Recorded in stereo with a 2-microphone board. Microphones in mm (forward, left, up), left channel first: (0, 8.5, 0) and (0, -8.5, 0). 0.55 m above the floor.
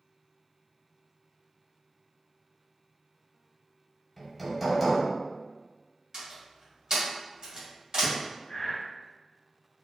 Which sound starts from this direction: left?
Breathing, at 8.5 s.